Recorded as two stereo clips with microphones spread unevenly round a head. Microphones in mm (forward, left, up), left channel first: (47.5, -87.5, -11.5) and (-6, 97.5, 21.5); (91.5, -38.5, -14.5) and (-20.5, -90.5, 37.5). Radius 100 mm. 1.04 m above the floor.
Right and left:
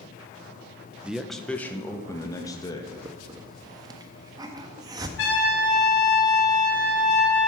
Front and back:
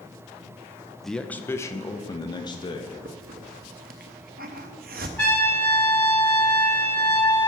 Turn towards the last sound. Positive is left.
turn(degrees=-50)